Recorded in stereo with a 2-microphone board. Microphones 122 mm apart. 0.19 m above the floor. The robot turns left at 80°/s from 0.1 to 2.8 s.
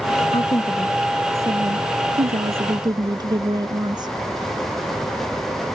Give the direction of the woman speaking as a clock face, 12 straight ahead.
10 o'clock.